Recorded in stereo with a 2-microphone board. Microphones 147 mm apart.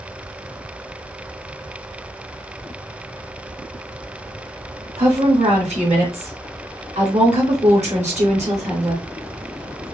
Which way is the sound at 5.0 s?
50° right (ahead or behind).